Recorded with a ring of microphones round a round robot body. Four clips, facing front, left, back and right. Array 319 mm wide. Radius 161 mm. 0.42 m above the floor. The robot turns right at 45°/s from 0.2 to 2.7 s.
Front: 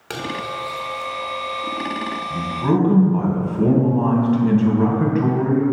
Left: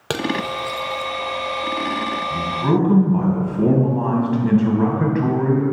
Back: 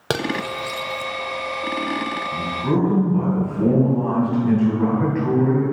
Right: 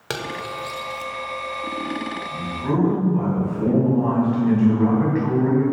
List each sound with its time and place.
0.1 s cutlery clinking: 155° left, 0.8 m; by 1.1 s 165° right, 0.8 m
2.3 s a man speaking: 35° left, 2.5 m; by 5.6 s 55° left, 2.5 m